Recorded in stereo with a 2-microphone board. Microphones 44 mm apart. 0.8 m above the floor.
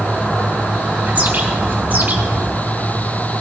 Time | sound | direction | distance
1.1 | a bird | 35° right (ahead or behind) | 2 m